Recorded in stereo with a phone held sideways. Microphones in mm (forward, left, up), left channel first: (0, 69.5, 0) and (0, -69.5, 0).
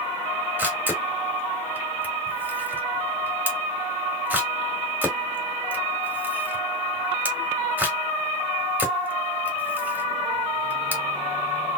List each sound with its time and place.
0.6 s a camera shutter: 10° right (ahead or behind), 1.2 m